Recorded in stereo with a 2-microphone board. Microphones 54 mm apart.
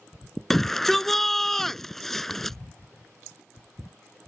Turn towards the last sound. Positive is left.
turn(degrees=5)  # may be behind; listen again after turning